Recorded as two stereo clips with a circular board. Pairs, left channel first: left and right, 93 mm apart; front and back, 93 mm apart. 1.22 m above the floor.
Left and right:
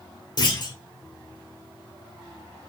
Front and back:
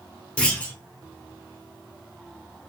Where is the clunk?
75° left, 1.2 m.